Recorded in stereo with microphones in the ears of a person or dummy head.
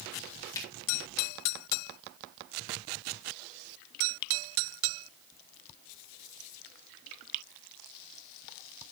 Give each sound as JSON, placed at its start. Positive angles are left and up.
{"t": 0.6, "sound": "a finger snap", "side_deg": 15, "distance_m": 4.0}